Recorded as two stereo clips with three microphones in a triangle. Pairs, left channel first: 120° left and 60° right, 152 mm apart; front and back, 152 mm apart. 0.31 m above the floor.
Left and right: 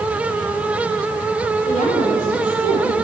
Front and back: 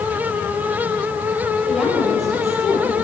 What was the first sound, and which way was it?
A woman speaking, 90° left.